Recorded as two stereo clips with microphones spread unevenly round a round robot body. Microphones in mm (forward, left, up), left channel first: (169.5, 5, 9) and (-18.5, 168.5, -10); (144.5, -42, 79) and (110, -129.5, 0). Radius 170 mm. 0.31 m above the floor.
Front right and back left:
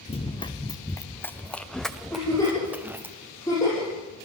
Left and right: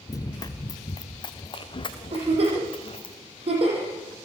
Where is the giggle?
125° right, 8.5 m.